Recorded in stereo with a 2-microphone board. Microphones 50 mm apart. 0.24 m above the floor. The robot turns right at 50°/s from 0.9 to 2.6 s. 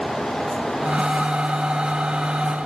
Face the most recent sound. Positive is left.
No sound to turn to.